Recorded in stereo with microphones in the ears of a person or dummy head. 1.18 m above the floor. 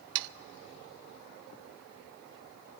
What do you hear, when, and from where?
0.1 s sawing: 65° right (ahead or behind), 0.5 m